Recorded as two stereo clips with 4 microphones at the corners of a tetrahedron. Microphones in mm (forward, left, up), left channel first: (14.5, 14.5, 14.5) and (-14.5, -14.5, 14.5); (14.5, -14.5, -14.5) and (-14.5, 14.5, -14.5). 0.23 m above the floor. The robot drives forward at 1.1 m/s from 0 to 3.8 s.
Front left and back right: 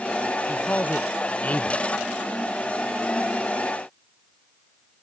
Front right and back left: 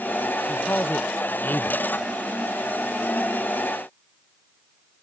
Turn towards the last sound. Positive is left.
turn(degrees=-10)